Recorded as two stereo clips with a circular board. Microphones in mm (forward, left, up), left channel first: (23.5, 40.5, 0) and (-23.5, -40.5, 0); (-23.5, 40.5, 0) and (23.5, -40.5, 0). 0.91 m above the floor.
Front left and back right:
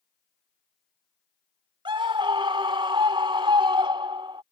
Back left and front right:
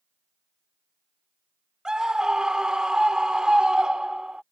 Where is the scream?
145° right.